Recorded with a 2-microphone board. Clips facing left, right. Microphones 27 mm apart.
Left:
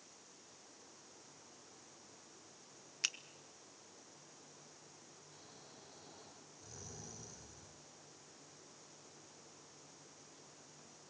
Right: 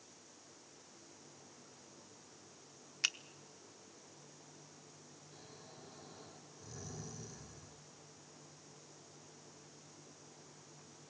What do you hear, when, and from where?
3.0 s a finger snap: 15° right (ahead or behind), 0.8 m
5.3 s snoring: 5° left (ahead or behind), 4 m